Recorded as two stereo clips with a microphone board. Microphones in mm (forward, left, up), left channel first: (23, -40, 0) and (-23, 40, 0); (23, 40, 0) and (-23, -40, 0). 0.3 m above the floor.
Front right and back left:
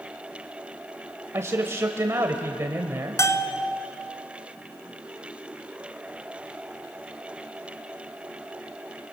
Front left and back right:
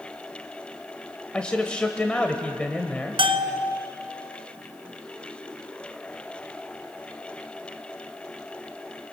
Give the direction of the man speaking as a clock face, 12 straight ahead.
8 o'clock.